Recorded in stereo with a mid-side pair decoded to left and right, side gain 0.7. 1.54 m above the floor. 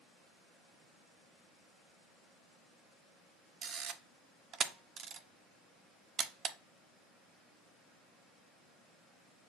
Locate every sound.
3.6 s a camera shutter: 35° right, 0.5 m